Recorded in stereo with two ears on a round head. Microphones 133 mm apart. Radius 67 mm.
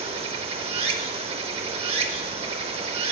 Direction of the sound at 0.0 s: 45° right (ahead or behind).